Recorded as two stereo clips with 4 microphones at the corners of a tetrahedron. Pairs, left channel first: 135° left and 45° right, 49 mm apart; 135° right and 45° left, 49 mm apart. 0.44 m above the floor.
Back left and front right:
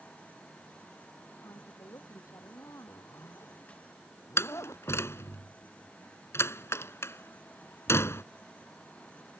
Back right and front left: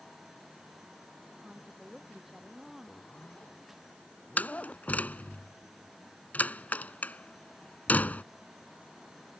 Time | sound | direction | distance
1.4 | a woman speaking | 130° left | ?
2.9 | a zipper | 160° left | ?
4.4 | a door slam | 170° left | ?